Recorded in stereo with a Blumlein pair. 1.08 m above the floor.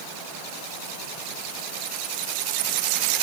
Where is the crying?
No crying in this recording.